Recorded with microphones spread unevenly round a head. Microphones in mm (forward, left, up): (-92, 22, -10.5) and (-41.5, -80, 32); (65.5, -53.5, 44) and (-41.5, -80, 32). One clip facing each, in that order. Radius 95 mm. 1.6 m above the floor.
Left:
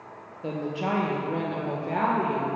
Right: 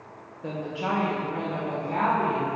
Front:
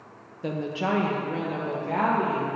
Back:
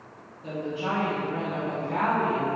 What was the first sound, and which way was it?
A woman speaking, 35° left.